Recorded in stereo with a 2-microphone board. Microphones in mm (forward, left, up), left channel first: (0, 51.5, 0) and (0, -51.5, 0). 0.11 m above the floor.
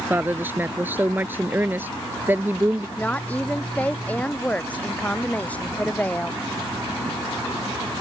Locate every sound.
0.1 s a woman speaking: 20° right (ahead or behind)
3.0 s a woman speaking: 15° left (ahead or behind)